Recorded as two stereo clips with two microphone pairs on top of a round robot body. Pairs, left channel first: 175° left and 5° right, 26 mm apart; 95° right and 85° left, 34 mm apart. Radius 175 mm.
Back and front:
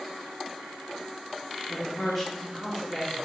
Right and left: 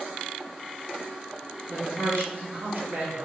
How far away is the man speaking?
About 2 m.